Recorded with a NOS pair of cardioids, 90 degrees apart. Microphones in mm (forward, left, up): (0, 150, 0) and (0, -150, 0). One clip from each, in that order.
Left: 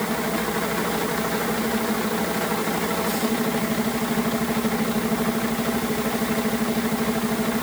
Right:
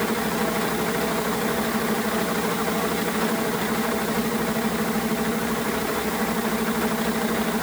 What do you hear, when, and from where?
Only background noise.